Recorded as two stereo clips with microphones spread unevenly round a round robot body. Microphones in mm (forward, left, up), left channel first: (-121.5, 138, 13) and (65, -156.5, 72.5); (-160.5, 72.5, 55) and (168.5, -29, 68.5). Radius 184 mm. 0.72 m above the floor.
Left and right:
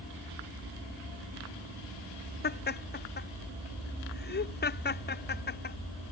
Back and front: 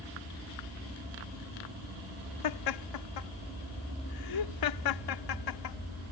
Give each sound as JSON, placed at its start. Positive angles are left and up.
{"t": 2.4, "sound": "laughter", "azimuth_deg": 180}